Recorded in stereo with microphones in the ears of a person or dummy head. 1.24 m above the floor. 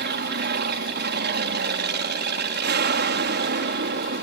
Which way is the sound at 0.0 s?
50° right (ahead or behind).